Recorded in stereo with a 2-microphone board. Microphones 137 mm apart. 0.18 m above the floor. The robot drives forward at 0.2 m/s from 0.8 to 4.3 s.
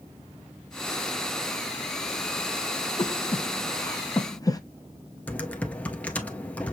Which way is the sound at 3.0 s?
35° left (ahead or behind).